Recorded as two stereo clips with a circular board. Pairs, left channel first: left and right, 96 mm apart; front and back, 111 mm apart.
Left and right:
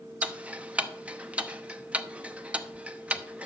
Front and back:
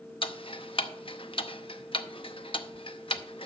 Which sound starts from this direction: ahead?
Ticking, at 0.2 s.